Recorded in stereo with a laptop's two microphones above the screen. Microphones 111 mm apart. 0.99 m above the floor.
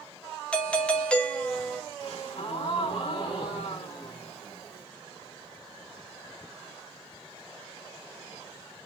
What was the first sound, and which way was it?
A doorbell, 10° left (ahead or behind).